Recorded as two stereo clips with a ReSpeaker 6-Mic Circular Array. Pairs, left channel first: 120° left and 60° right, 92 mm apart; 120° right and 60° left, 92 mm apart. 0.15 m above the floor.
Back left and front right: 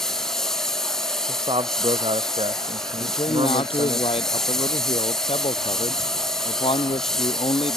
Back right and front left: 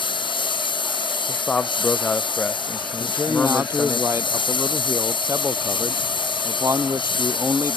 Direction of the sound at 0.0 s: 155° right.